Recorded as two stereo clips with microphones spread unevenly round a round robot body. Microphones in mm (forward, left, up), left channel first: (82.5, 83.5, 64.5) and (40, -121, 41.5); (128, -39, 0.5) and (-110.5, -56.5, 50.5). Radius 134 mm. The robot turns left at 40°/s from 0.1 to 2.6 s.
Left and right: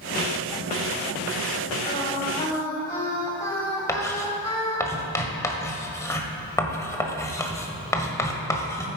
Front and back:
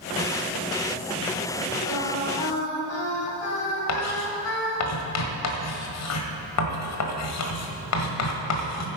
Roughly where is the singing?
Ahead left.